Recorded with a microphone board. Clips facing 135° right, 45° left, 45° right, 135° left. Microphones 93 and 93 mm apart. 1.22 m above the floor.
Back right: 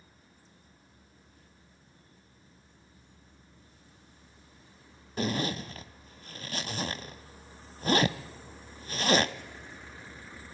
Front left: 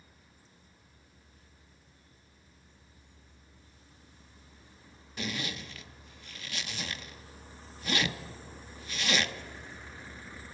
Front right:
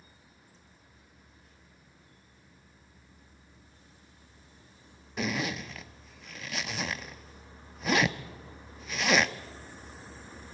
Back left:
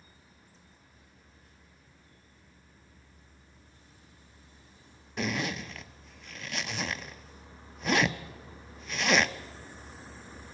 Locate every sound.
5.2 s a zipper: 135° right, 0.7 m